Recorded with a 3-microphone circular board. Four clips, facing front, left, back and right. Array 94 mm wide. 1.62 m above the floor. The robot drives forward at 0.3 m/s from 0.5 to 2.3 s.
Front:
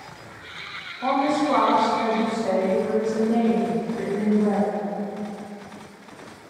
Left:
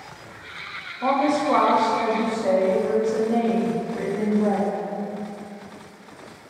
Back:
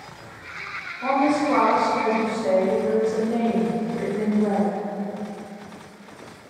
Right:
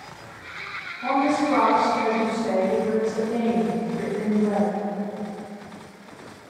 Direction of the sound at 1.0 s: 85° left.